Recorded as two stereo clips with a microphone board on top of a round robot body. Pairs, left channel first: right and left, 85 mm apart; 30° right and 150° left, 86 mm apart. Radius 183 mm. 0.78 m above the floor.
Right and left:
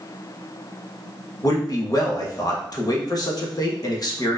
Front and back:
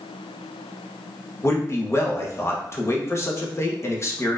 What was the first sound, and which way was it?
A man speaking, 75° right.